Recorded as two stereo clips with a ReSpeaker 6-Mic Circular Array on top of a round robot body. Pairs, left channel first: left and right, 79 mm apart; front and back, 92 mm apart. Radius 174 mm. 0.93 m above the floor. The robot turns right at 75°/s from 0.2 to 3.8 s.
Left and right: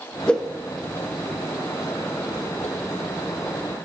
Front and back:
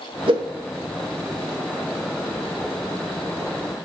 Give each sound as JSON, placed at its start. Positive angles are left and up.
{"t": 0.3, "sound": "a whoosh", "azimuth_deg": 165, "distance_m": 1.9}